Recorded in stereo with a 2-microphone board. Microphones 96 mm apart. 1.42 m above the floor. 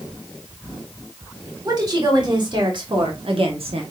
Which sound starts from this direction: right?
A woman speaking, at 1.6 s.